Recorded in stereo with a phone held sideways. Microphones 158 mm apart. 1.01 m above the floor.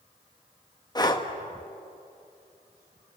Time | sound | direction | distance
0.9 | breathing | 25° left (ahead or behind) | 1.5 m